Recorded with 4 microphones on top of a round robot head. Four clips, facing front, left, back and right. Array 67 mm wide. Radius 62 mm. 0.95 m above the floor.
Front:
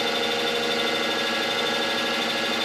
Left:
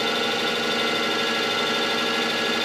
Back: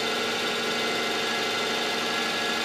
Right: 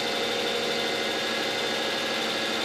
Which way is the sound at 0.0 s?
70° left.